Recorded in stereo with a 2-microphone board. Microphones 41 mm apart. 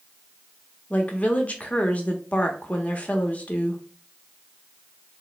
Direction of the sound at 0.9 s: 35° left (ahead or behind).